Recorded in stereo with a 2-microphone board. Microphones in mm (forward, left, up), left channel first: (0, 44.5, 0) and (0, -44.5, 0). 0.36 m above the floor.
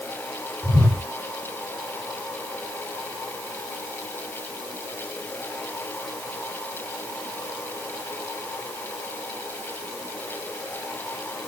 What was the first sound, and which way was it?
A whoosh, 15° left (ahead or behind).